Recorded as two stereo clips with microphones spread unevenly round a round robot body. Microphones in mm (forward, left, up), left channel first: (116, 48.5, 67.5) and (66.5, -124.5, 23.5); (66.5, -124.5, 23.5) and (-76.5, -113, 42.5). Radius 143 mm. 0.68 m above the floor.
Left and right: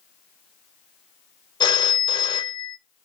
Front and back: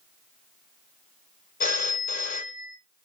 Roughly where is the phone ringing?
Ahead.